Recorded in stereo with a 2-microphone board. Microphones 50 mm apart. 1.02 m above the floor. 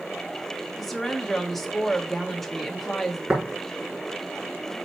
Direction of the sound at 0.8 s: 5° left (ahead or behind).